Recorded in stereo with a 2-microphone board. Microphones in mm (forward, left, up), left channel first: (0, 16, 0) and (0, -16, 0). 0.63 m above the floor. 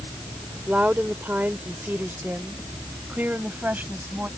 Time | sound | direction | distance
0.7 | a woman speaking | 45° right (ahead or behind) | ?